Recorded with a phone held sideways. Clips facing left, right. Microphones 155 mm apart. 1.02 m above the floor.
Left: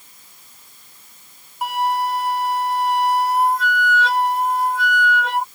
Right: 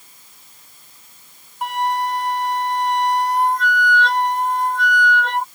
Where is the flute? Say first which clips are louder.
Even; 5° left (ahead or behind).